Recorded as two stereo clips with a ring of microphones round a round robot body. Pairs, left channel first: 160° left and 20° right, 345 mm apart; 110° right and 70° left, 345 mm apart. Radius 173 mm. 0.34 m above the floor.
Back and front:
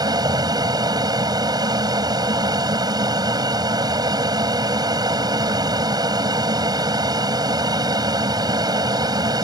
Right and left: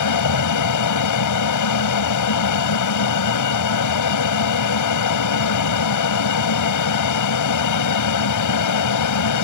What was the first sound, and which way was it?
An aircraft, 100° right.